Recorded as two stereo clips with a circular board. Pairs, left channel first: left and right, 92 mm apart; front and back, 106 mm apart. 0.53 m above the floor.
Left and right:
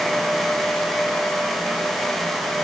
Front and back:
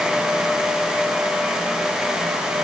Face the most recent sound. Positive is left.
No sound to turn to.